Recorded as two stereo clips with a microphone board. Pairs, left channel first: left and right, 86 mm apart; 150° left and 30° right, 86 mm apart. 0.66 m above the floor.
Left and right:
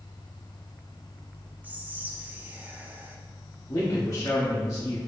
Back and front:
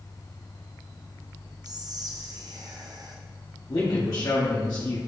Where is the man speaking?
125° left, 1.0 m.